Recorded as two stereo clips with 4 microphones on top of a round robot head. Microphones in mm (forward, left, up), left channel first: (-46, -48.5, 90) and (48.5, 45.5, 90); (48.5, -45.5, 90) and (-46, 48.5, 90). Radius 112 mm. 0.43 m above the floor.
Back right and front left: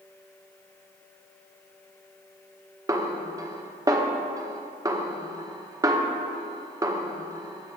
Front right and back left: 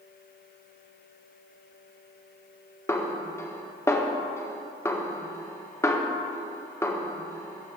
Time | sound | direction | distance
2.9 | a snare drum | 5° left | 1.5 m